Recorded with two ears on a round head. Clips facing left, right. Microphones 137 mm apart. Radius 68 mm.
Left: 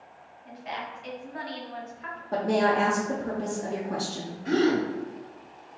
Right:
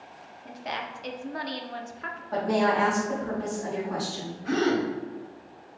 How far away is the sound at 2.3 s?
About 0.8 m.